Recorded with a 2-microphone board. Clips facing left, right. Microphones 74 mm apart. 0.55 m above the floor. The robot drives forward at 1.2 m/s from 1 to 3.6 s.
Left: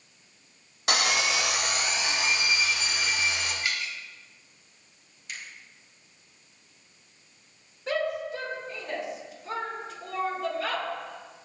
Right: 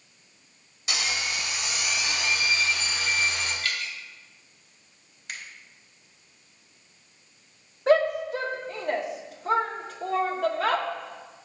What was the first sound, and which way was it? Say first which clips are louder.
Sawing: left 5 dB; 50° left (ahead or behind).